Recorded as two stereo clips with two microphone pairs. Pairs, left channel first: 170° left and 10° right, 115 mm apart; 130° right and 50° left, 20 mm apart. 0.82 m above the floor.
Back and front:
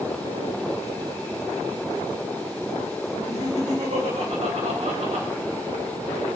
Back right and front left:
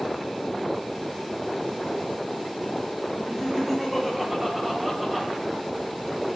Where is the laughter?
20° right, 4 m.